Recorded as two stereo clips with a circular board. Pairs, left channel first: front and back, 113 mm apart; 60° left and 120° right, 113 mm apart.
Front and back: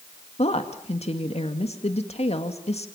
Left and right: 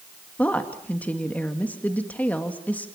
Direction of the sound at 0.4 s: 15° right.